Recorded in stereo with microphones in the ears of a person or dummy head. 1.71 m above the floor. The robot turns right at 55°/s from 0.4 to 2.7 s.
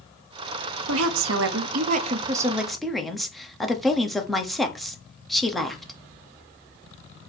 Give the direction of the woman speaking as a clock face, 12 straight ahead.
3 o'clock.